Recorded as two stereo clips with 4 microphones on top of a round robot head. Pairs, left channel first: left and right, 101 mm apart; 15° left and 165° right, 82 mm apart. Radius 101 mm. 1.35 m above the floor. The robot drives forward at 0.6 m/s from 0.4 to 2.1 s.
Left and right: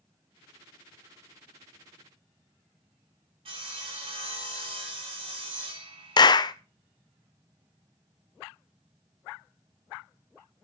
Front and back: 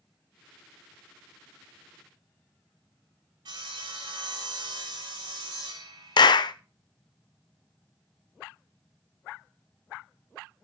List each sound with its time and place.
3.5 s sawing: 125° right, 3 m
6.2 s a clap: 45° left, 0.7 m